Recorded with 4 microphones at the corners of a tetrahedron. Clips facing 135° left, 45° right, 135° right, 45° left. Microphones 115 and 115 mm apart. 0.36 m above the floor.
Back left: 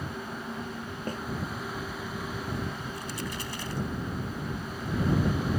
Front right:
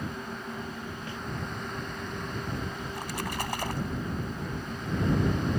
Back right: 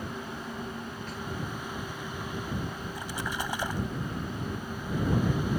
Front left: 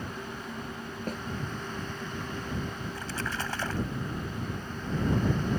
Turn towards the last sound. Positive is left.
turn(degrees=-60)